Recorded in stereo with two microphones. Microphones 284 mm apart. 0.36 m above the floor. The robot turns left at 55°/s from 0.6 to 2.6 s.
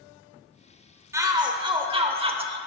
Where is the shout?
10° right (ahead or behind), 0.9 m; by 2.6 s 20° right (ahead or behind), 0.9 m.